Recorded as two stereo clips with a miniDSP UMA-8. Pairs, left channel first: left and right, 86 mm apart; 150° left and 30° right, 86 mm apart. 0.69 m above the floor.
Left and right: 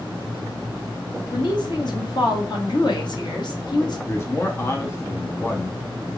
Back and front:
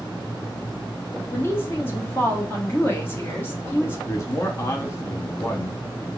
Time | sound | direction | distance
1.3 | a woman speaking | 90° left | 1.3 m
4.1 | a man speaking | 130° left | 0.6 m